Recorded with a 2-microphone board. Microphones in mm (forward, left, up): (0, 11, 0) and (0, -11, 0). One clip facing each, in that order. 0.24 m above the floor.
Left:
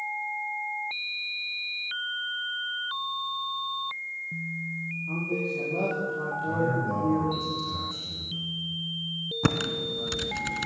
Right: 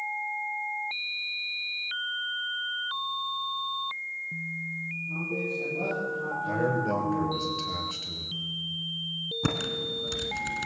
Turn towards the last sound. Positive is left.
turn(degrees=20)  # may be behind; listen again after turning